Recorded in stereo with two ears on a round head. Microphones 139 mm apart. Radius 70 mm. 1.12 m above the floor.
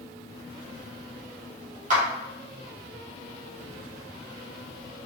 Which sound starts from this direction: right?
A clap, at 1.9 s.